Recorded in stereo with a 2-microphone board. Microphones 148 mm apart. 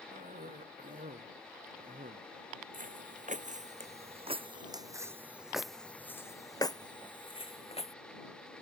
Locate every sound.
0.1 s a cough: 75° right (ahead or behind)
2.7 s footsteps: 65° right (ahead or behind); by 7.9 s 45° left (ahead or behind)